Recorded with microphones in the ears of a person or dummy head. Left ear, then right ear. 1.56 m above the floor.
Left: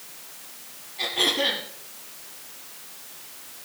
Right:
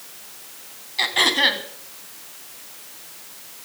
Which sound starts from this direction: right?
Throat clearing, at 1.0 s.